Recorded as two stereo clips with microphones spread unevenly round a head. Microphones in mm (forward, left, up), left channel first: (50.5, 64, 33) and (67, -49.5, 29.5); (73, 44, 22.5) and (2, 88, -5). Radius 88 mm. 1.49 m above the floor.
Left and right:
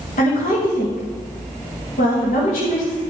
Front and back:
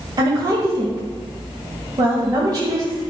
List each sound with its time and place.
0.2 s a woman speaking: 105° left, 2 m